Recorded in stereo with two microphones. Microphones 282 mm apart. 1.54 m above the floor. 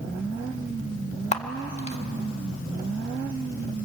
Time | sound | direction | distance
1.3 | a camera shutter | 25° left (ahead or behind) | 1.5 m